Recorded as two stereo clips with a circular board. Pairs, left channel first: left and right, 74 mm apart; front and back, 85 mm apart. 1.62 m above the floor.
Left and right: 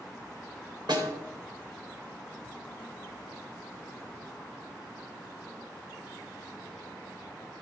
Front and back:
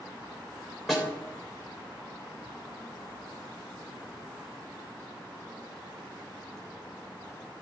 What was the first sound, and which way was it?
A snare drum, 90° right.